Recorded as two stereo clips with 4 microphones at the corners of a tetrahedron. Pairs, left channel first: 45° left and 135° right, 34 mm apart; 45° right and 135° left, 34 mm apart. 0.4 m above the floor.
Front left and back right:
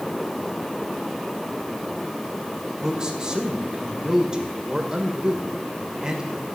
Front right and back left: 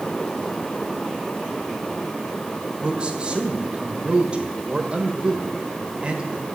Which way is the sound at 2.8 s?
175° left.